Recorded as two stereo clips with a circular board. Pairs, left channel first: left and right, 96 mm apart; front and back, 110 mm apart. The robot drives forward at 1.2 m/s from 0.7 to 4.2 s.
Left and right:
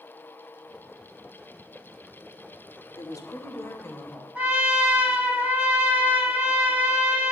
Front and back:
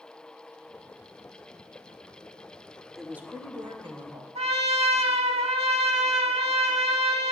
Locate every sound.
3.0 s a woman speaking: 85° left, 0.9 m; by 4.2 s 160° left, 1.7 m
4.3 s a trumpet: 165° right, 1.1 m